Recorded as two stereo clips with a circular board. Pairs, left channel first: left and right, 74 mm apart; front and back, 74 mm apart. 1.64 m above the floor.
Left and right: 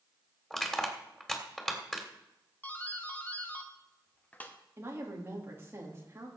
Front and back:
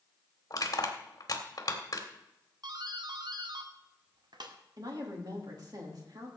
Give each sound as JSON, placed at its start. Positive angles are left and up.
{"t": 0.5, "sound": "crushing", "azimuth_deg": 10, "distance_m": 2.0}
{"t": 2.6, "sound": "a doorbell", "azimuth_deg": 160, "distance_m": 1.2}
{"t": 4.8, "sound": "a woman speaking", "azimuth_deg": -145, "distance_m": 3.0}